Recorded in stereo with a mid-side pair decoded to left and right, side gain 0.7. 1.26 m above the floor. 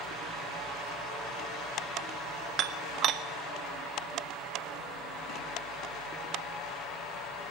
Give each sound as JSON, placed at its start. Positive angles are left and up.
{"t": 2.6, "sound": "dishes clattering", "azimuth_deg": -45, "distance_m": 1.3}